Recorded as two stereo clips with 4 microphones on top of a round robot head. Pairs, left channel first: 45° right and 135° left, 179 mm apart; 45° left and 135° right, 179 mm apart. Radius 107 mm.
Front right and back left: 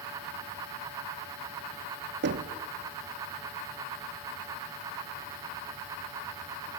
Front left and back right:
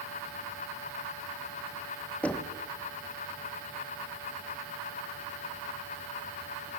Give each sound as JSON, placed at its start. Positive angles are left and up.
{"t": 2.2, "sound": "knocking", "azimuth_deg": 125, "distance_m": 1.4}